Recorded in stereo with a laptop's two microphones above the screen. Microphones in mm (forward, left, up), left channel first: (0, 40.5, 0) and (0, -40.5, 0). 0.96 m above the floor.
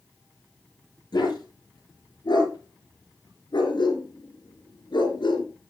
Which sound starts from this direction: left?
A dog barking, at 1.1 s.